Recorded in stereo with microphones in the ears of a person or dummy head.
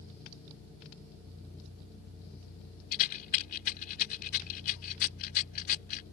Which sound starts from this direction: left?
A rattle, at 2.9 s.